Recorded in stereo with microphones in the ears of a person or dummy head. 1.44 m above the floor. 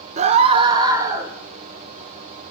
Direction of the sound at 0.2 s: 35° right (ahead or behind).